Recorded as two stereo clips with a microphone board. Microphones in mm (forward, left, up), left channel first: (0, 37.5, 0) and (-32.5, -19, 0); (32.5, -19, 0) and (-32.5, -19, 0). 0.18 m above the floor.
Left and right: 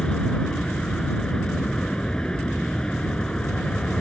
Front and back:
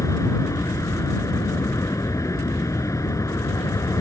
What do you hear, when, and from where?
0.0 s an aircraft: 15° right